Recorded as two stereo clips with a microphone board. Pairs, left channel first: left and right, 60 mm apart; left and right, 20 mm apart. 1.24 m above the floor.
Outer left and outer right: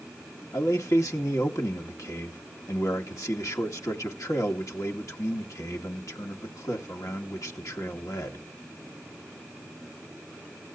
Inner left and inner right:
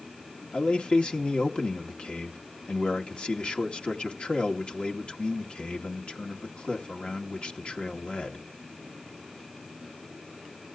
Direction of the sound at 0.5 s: 70° left (ahead or behind).